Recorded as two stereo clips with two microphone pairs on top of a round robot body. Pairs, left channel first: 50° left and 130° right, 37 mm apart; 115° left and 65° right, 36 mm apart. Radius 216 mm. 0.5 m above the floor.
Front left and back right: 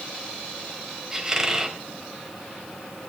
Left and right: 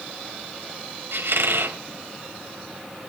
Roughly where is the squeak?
Ahead right.